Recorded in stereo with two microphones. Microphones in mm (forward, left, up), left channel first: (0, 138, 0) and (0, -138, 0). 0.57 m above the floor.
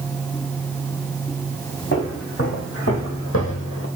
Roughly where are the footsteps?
Left.